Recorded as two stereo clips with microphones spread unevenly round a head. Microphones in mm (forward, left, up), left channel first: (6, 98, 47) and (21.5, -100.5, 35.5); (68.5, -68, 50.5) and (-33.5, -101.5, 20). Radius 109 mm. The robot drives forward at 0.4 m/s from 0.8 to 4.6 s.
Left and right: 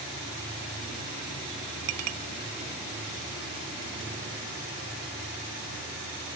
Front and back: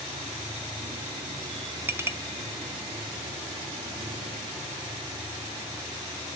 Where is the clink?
85° right, 0.8 m; by 2.2 s 90° right, 0.8 m.